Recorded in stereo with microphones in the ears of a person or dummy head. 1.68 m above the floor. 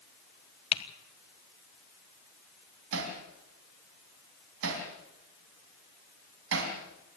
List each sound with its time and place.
0.7 s typing on a keyboard: 30° left (ahead or behind), 1.4 m
2.9 s hammering: 70° right (ahead or behind), 4 m